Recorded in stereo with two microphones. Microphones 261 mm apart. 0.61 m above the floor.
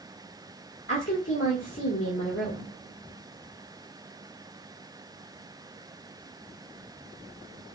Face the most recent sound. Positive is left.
turn(degrees=55)  # may be behind; listen again after turning